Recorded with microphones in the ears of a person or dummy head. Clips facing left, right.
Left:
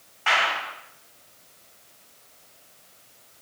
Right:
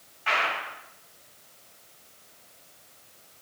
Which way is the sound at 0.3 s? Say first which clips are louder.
Left 3 dB; 60° left (ahead or behind).